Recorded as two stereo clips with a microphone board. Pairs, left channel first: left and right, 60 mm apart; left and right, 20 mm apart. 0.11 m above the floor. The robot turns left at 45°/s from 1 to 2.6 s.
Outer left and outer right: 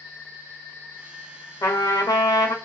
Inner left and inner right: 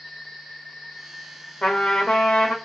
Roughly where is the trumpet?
Behind left.